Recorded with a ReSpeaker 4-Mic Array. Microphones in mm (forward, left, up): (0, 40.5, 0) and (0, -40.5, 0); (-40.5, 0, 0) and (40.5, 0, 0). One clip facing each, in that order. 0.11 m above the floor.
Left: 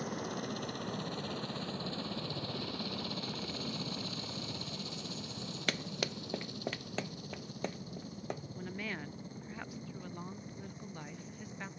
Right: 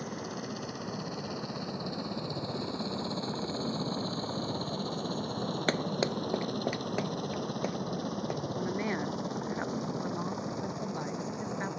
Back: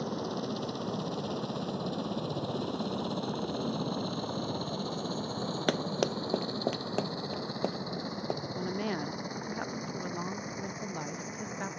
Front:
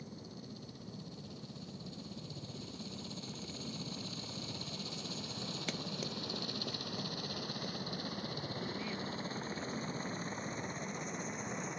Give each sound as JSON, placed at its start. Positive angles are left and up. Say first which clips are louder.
{"t": 0.0, "sound": "a helicopter", "louder": "right 1 dB, back 15 dB", "azimuth_deg": 180}
{"t": 5.7, "sound": "running footsteps", "louder": "right 7 dB, back 14 dB", "azimuth_deg": -150}
{"t": 8.6, "sound": "a woman speaking", "louder": "right 10 dB, back 7 dB", "azimuth_deg": -150}